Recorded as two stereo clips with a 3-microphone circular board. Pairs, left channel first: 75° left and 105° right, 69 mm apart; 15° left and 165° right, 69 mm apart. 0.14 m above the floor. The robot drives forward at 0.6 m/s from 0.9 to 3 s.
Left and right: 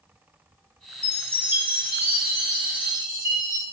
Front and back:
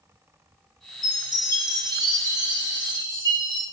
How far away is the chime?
About 0.7 m.